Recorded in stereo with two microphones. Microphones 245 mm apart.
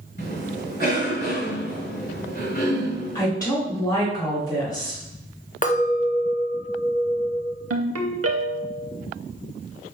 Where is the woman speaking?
15° left (ahead or behind), 1.8 m.